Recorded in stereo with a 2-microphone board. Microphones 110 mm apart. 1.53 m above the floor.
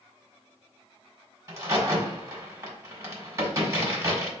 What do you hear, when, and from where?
1.5 s a crack: 30° right (ahead or behind), 1.4 m